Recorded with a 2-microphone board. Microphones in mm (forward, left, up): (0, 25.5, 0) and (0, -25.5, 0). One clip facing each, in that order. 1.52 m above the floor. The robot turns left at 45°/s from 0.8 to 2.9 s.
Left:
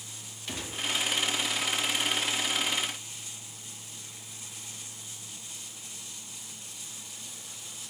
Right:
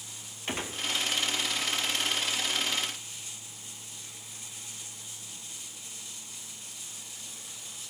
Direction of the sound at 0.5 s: 40° right (ahead or behind).